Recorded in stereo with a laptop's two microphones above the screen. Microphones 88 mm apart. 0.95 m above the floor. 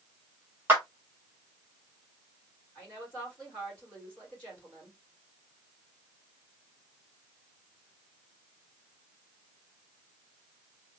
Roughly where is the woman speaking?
Centre.